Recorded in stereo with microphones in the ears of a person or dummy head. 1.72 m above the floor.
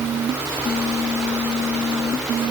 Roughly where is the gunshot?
I don't hear a gunshot.